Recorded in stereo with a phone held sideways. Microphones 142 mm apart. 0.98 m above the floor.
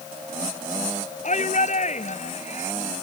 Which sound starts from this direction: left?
A shout, at 1.2 s.